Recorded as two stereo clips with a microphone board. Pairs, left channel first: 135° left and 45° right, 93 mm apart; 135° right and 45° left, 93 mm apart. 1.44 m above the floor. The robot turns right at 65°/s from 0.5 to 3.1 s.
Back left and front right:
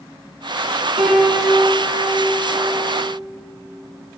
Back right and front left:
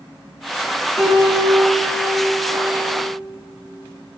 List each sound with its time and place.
1.0 s a piano: 45° right, 4 m; by 3.0 s 90° left, 4 m